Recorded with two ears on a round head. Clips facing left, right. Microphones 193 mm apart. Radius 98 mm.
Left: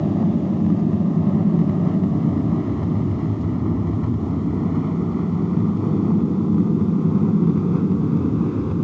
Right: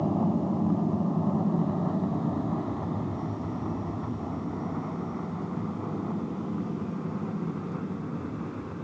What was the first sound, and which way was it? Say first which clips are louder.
An aircraft: left 7 dB; 25° left (ahead or behind).